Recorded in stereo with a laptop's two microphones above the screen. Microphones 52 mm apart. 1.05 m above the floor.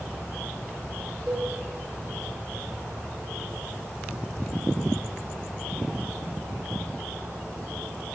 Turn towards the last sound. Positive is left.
turn(degrees=-5)  # may be behind; listen again after turning